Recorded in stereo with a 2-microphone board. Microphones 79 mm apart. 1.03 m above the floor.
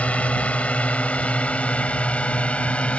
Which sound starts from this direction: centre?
A drone, at 0.0 s.